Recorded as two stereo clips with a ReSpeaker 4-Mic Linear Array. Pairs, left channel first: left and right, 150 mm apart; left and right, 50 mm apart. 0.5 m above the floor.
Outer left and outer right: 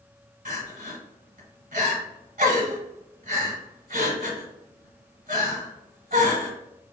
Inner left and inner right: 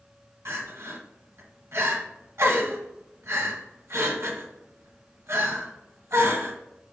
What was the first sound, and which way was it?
Crying, 70° right (ahead or behind).